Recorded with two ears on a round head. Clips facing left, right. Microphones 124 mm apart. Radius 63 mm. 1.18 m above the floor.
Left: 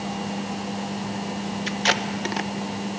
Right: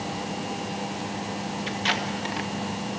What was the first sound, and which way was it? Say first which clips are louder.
Tape being pulled: left 4 dB; 55° left (ahead or behind).